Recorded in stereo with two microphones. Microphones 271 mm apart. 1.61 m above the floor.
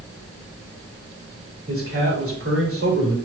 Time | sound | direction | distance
1.7 | a man speaking | 55° right (ahead or behind) | 3 m